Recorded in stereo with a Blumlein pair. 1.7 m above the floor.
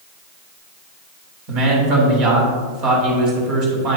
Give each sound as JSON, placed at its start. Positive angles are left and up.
{"t": 1.5, "sound": "a man speaking", "azimuth_deg": -40, "distance_m": 3.0}